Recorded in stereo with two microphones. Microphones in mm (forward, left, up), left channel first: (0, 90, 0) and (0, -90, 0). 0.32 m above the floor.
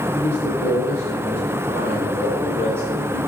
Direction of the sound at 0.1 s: 10° right (ahead or behind).